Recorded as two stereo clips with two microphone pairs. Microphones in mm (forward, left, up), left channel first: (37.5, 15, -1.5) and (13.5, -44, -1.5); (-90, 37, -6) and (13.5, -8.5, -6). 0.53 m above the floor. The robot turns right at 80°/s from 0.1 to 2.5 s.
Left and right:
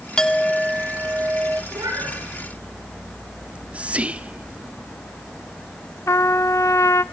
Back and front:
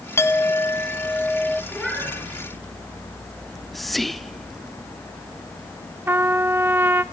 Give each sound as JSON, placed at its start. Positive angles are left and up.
{"t": 0.2, "sound": "a clink", "azimuth_deg": 130, "distance_m": 0.7}
{"t": 1.7, "sound": "a cat meowing", "azimuth_deg": -125, "distance_m": 5.0}
{"t": 3.4, "sound": "whispering", "azimuth_deg": -130, "distance_m": 0.6}
{"t": 6.1, "sound": "a trumpet", "azimuth_deg": 50, "distance_m": 0.6}